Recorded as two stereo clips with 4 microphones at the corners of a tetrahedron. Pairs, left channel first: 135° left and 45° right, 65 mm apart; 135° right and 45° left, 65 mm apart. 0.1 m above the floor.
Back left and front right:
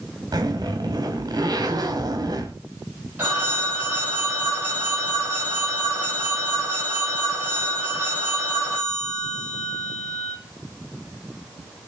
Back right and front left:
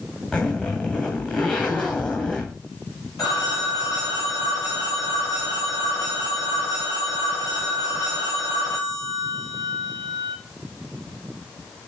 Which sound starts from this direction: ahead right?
A zipper, at 0.3 s.